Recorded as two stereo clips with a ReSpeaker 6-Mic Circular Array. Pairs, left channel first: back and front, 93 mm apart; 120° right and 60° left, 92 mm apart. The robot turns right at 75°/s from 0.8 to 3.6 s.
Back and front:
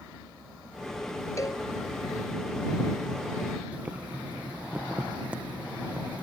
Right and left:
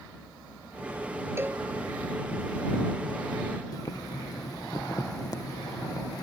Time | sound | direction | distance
1.4 | a cowbell | 125° left | ?
3.7 | boiling | 75° right | ?